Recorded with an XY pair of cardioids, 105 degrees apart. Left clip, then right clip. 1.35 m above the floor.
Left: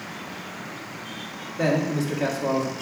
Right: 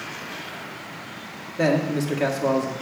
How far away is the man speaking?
About 1.8 m.